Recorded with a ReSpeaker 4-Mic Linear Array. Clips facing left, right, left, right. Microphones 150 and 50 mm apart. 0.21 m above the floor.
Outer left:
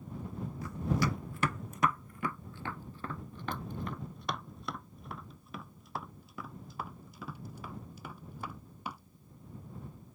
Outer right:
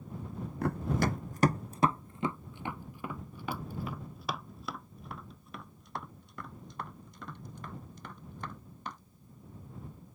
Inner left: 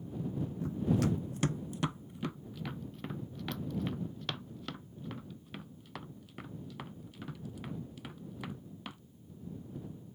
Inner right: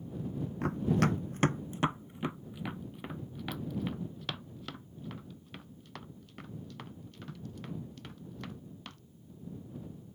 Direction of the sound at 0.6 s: 60° right (ahead or behind).